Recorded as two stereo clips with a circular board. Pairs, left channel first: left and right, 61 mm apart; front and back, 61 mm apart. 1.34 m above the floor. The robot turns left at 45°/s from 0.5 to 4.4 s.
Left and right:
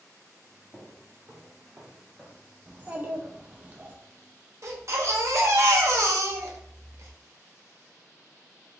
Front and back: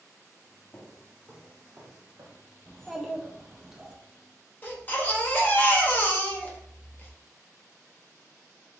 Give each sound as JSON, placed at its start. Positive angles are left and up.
{"t": 0.7, "sound": "footsteps", "azimuth_deg": -30, "distance_m": 1.7}
{"t": 2.7, "sound": "a child speaking", "azimuth_deg": -65, "distance_m": 0.7}
{"t": 4.6, "sound": "a baby crying", "azimuth_deg": -60, "distance_m": 0.8}